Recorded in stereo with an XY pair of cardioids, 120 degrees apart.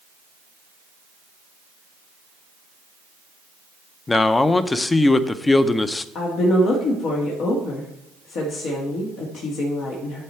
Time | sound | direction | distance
4.1 | a man speaking | 25° left | 0.6 m
6.2 | a woman speaking | 70° left | 1.6 m